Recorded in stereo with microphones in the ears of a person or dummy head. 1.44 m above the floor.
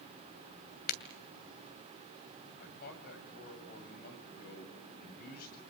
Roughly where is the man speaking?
Left.